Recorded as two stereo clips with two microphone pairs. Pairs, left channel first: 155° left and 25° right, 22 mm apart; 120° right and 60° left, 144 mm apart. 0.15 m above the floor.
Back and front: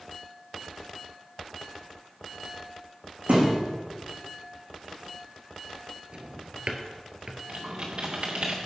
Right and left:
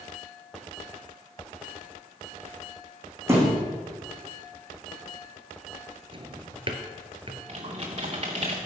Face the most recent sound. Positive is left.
turn(degrees=10)